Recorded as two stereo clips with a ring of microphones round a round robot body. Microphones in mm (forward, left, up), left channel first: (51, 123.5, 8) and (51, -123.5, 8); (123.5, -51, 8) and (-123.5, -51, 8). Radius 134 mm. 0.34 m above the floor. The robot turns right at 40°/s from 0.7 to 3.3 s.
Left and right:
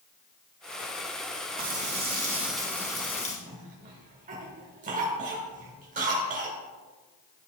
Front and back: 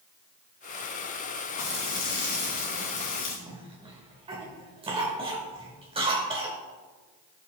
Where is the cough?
125° right, 0.9 m.